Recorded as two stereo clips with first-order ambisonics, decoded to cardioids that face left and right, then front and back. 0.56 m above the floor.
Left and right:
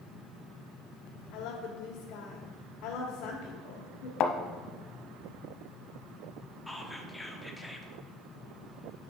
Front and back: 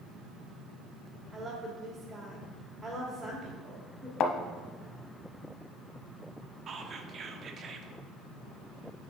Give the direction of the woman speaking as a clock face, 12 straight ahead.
9 o'clock.